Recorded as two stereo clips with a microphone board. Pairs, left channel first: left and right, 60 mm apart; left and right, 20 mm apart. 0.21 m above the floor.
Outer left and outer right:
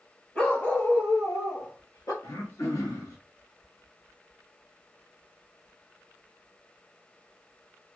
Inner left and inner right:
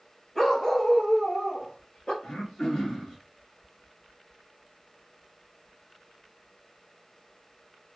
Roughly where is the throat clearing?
Left.